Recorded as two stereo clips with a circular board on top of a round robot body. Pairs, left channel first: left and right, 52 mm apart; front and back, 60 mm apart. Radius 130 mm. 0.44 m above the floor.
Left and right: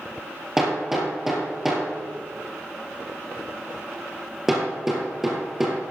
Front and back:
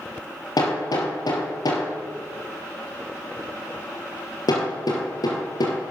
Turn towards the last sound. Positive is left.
turn(degrees=-5)